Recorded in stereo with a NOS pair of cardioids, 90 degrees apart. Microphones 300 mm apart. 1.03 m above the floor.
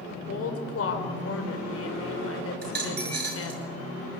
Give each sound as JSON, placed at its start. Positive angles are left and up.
{"t": 0.3, "sound": "a woman speaking", "azimuth_deg": 50, "distance_m": 4.5}
{"t": 2.6, "sound": "a dropped coin", "azimuth_deg": -35, "distance_m": 7.0}